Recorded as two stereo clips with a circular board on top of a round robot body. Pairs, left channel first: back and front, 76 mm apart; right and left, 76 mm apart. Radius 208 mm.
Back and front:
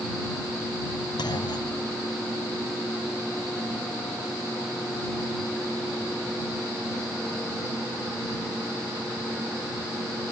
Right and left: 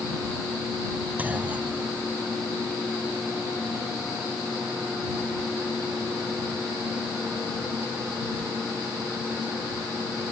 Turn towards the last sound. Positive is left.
turn(degrees=160)